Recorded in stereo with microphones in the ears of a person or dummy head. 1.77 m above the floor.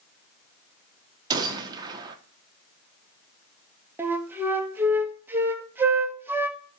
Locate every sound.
1.3 s a gunshot: 25° right (ahead or behind), 1.3 m
4.0 s a flute: 10° right (ahead or behind), 1.2 m